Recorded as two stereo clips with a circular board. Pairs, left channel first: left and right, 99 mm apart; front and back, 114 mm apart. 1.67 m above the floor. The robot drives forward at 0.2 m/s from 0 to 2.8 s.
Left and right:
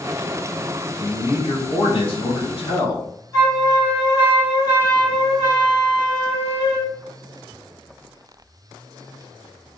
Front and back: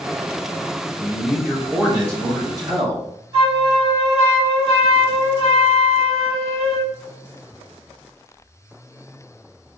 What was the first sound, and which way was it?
A man speaking, 105° left.